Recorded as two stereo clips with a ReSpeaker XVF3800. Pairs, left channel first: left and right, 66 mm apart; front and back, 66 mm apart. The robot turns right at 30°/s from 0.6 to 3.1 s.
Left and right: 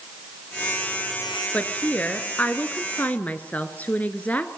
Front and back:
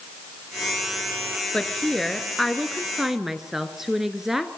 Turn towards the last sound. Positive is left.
turn(degrees=105)